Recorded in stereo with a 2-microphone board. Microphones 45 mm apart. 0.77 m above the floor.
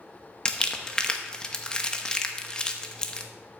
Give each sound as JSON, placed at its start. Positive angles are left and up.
{"t": 0.5, "sound": "crumpling", "side_deg": 20, "distance_m": 0.9}